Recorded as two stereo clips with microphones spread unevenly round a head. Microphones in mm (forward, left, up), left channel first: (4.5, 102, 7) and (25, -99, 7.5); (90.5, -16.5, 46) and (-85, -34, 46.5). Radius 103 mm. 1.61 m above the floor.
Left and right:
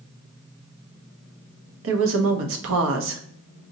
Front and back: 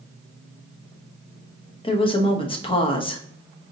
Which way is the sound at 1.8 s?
55° right.